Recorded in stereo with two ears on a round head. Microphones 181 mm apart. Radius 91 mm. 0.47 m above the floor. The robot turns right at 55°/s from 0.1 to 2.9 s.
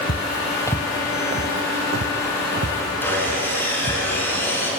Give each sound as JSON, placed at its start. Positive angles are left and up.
{"t": 0.1, "sound": "footsteps", "side_deg": 55, "distance_m": 0.7}
{"t": 3.0, "sound": "sawing", "side_deg": 10, "distance_m": 7.0}